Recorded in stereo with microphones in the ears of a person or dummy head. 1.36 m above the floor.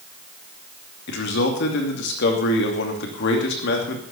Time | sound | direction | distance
1.1 | a man speaking | 65° left (ahead or behind) | 2.5 m